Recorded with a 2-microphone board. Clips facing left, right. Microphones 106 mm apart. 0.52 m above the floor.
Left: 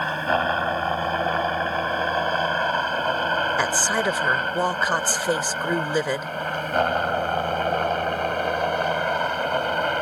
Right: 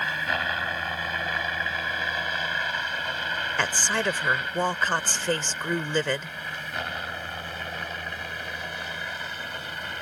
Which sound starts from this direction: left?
A helicopter, at 0.0 s.